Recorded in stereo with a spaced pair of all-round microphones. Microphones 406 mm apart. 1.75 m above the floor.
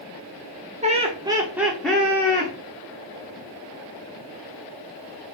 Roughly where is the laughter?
Centre.